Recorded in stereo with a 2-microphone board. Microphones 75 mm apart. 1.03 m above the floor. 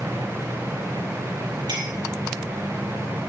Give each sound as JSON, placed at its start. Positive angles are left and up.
{"t": 1.7, "sound": "a clink", "side_deg": -70, "distance_m": 6.5}